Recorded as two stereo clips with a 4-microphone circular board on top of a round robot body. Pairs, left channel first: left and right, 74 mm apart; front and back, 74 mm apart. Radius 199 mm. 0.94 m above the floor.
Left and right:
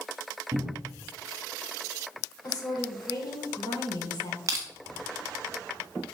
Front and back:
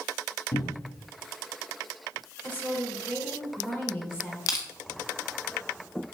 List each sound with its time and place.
0.5 s a cupboard door: 35° right, 2.5 m
2.4 s a woman speaking: 65° left, 5 m
4.5 s crushing: 40° right, 0.6 m